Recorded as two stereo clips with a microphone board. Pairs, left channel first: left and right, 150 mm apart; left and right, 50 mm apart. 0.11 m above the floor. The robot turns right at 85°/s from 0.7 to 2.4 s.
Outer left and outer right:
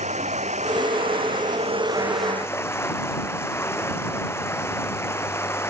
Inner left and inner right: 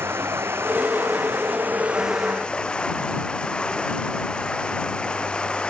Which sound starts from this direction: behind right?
Running water, at 0.0 s.